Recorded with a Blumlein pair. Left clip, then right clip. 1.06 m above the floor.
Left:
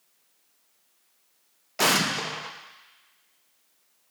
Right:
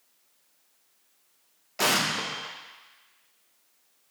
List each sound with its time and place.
1.8 s an explosion: 10° left, 0.5 m